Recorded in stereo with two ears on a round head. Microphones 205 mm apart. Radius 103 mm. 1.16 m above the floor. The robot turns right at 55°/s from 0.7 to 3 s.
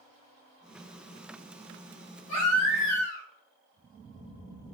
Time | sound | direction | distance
2.3 | a baby crying | 95° left | 2.0 m